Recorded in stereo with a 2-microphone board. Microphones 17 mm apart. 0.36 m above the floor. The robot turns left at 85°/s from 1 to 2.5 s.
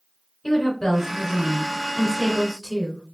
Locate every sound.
0.4 s a woman speaking: 150° left, 2.5 m; by 3.0 s 25° left, 2.5 m